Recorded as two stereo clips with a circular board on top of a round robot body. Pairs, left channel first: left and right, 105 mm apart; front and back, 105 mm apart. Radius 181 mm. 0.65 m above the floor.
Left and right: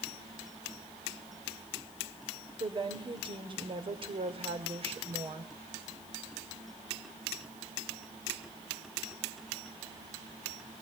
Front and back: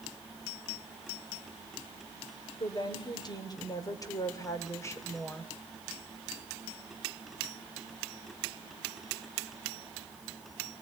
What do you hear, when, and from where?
2.6 s a woman speaking: 45° right, 3.5 m; by 5.5 s 70° right, 2.5 m